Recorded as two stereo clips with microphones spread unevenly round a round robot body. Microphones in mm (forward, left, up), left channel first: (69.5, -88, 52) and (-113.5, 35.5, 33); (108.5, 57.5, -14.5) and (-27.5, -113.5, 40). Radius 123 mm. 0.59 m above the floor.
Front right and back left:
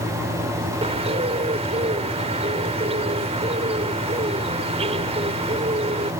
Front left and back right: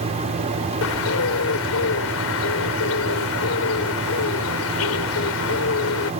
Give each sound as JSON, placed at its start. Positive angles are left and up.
{"t": 0.8, "sound": "a bird", "azimuth_deg": 80}